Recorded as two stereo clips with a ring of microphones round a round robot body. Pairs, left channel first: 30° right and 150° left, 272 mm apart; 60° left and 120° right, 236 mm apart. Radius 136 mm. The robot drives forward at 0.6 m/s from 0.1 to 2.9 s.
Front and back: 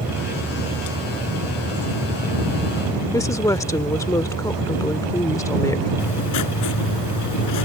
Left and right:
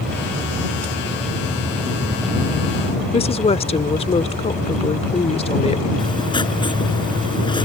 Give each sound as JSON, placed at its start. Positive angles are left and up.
{"t": 3.1, "sound": "a woman speaking", "azimuth_deg": 35}
{"t": 6.0, "sound": "writing", "azimuth_deg": -10}